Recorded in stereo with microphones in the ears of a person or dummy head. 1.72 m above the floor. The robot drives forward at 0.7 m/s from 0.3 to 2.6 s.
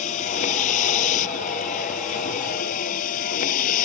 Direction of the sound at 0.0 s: 55° left (ahead or behind).